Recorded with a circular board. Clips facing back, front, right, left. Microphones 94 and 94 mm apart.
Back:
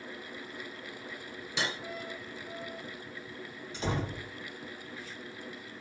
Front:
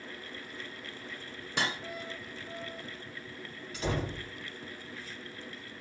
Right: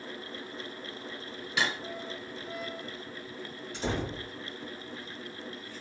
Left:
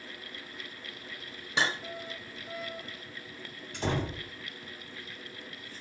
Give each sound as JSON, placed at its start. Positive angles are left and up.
{"t": 1.6, "sound": "cutlery clinking", "azimuth_deg": 35, "distance_m": 1.1}
{"t": 3.7, "sound": "a door slam", "azimuth_deg": 120, "distance_m": 2.5}